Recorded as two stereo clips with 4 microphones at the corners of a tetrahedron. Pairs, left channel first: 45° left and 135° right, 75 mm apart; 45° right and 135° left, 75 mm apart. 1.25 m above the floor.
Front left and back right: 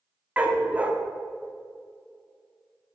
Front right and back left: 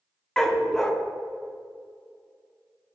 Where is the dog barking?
120° right, 0.8 m.